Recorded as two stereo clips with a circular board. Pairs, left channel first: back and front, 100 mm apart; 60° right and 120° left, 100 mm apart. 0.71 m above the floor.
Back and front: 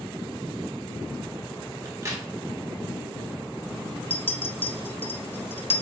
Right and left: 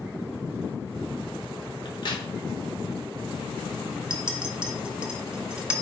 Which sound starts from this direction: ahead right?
A crack, at 1.9 s.